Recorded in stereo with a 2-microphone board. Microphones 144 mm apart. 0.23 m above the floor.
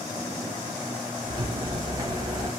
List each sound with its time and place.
1.3 s a rattle: 30° right (ahead or behind), 1.1 m